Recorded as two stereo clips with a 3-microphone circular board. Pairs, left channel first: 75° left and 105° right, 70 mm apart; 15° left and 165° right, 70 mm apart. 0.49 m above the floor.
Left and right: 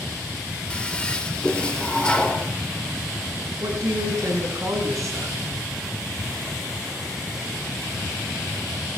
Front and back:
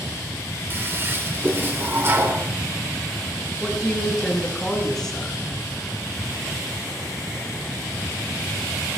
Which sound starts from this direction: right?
A woman speaking, at 3.6 s.